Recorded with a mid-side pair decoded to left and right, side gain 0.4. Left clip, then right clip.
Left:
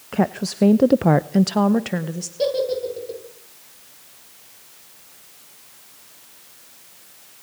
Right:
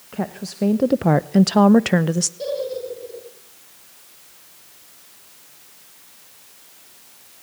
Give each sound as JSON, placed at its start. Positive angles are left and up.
{"t": 0.1, "sound": "a woman speaking", "azimuth_deg": 50, "distance_m": 1.2}
{"t": 2.4, "sound": "a giggle", "azimuth_deg": 60, "distance_m": 9.0}